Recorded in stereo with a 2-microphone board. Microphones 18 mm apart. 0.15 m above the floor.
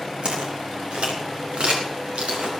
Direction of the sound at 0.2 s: 80° right.